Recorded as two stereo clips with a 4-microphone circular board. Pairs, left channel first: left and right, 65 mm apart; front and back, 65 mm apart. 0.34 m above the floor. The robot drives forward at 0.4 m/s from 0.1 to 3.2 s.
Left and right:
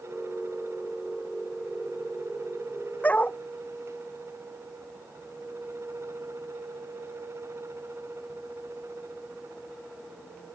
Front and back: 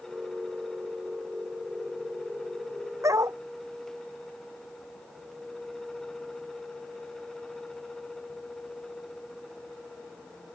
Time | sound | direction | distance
3.0 | a dog barking | 155° left | ?